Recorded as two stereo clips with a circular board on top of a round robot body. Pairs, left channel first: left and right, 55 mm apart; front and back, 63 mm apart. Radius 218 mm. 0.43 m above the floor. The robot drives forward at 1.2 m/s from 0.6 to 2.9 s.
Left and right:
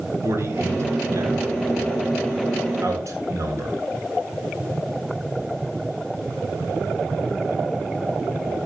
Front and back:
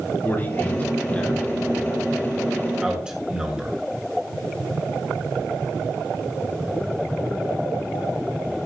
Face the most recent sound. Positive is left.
turn(degrees=-105)